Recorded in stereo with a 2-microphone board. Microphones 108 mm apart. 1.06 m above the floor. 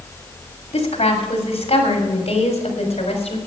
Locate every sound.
0.7 s a woman speaking: 85° left, 3 m; by 3.4 s 80° left, 4.5 m